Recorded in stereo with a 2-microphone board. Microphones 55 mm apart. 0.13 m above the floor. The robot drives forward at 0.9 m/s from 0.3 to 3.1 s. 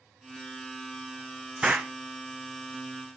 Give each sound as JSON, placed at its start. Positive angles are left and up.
{"t": 1.6, "sound": "an explosion", "side_deg": -15, "distance_m": 1.5}